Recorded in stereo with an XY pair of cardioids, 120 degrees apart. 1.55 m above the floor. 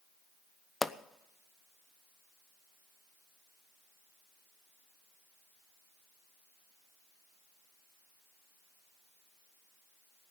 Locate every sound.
0.8 s a pop: 15° left, 0.6 m